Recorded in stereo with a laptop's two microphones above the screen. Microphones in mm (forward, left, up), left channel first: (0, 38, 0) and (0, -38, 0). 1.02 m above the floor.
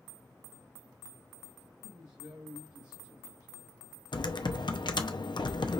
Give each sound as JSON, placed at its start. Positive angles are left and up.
{"t": 1.8, "sound": "a woman speaking", "side_deg": -50, "distance_m": 1.3}
{"t": 4.1, "sound": "typing on a keyboard", "side_deg": 80, "distance_m": 0.6}